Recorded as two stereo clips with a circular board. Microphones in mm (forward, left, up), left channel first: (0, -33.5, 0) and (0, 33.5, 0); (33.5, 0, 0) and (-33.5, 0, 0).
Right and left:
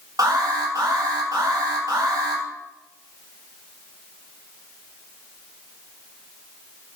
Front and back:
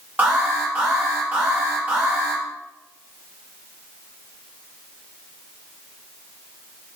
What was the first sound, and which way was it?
An alarm, 115° left.